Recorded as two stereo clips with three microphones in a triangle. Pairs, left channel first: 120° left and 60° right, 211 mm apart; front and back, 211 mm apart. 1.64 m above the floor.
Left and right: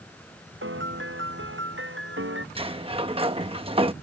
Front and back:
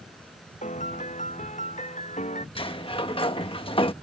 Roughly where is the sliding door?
Ahead right.